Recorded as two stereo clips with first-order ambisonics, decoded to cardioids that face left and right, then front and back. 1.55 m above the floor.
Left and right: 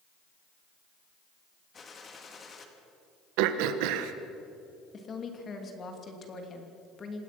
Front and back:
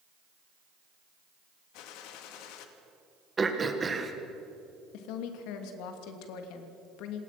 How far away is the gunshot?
About 2.0 m.